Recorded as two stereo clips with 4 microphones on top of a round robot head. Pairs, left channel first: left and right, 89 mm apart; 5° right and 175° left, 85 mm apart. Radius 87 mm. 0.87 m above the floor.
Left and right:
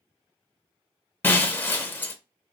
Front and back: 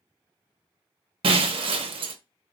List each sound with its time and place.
1.2 s breaking glass: 160° left, 0.6 m